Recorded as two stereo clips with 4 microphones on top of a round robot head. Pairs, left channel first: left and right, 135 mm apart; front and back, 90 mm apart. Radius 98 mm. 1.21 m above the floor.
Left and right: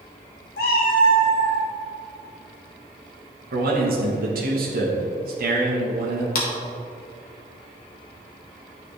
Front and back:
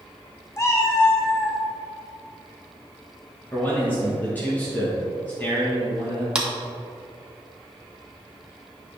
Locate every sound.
0.6 s a cat meowing: 55° left, 1.0 m
3.5 s a man speaking: 75° right, 1.3 m
6.3 s a clap: 100° left, 1.4 m